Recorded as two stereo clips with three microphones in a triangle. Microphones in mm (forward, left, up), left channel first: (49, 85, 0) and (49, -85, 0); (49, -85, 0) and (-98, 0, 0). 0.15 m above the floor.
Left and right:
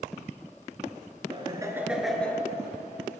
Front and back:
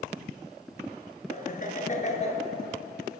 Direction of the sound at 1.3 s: 45° right.